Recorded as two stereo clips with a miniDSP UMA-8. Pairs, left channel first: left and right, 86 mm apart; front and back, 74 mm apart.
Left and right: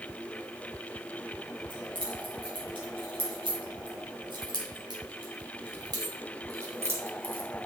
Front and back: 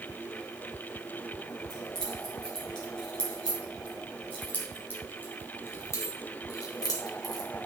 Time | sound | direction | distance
1.7 | keys jangling | 85° right | 5.5 m